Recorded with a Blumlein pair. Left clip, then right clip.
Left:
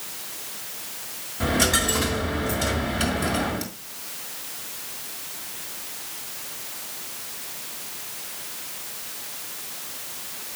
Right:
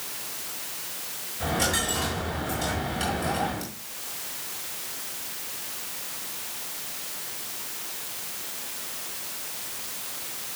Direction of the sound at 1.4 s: 20° left.